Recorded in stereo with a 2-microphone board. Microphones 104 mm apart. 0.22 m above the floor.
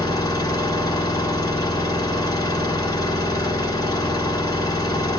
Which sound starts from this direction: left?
An engine running, at 0.0 s.